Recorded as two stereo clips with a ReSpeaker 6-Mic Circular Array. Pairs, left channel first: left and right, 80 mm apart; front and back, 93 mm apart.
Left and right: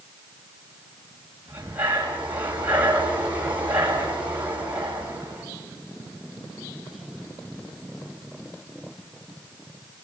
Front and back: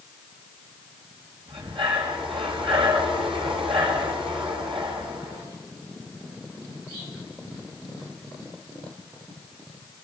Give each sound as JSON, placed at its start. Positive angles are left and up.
{"t": 1.5, "sound": "breathing", "azimuth_deg": -160, "distance_m": 7.5}